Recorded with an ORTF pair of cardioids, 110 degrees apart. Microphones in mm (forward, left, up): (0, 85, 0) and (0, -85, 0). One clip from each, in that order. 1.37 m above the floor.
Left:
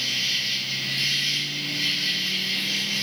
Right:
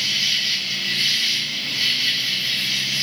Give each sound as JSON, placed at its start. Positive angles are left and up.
{"t": 0.0, "sound": "an insect", "azimuth_deg": -20, "distance_m": 0.7}